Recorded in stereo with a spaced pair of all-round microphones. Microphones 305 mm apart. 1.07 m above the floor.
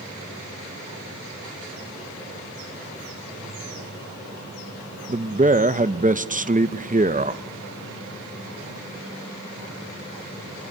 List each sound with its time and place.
5.1 s a man speaking: 25° right (ahead or behind), 0.7 m